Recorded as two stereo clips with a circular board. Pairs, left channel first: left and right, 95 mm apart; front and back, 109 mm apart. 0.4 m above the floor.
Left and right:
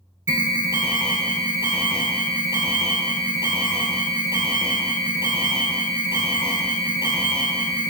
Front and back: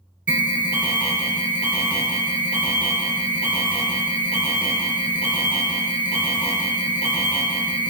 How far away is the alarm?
About 0.8 m.